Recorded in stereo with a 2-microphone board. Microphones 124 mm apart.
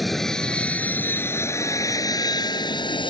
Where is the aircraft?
Centre (ahead or behind); by 3.1 s 45° left (ahead or behind).